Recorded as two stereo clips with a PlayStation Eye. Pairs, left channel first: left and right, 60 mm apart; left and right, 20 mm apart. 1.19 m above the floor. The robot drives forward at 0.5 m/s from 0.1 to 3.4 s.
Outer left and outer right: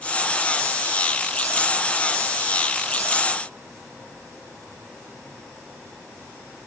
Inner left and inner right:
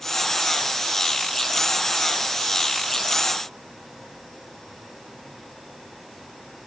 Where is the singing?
No singing in this recording.